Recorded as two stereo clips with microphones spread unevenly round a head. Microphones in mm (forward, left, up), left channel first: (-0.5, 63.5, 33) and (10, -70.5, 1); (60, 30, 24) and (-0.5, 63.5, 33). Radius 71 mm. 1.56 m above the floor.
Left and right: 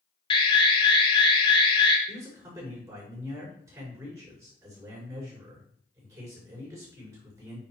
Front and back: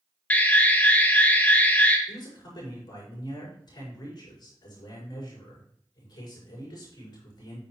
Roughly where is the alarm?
Ahead left.